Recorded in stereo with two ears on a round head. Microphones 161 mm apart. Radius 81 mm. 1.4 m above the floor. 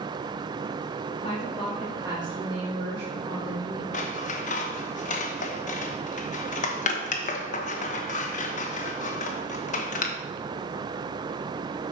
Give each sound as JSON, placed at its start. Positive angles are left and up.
{"t": 1.2, "sound": "a woman speaking", "side_deg": 25, "distance_m": 1.8}
{"t": 3.9, "sound": "scissors", "side_deg": 45, "distance_m": 1.0}